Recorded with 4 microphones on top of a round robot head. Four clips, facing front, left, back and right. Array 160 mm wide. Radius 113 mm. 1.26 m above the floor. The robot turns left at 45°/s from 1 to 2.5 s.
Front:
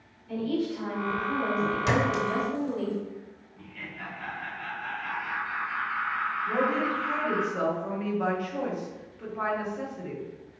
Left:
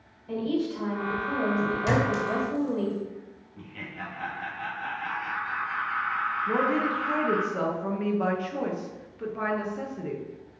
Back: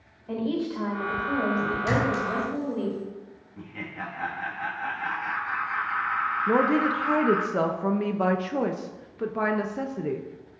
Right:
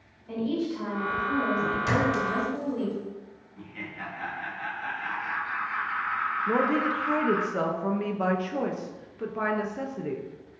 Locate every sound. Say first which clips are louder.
0.3 s a woman speaking: left 1 dB, back 1 dB; 165° left, 3 m; by 2.9 s 95° left, 3 m
1.9 s a clink: even, back 1 dB; 5° left, 3 m; by 3.1 s 25° right, 3 m
3.6 s laughter: even, back 6 dB; 160° left, 1.5 m
6.5 s a woman speaking: right 1 dB, back 5 dB; 175° right, 0.8 m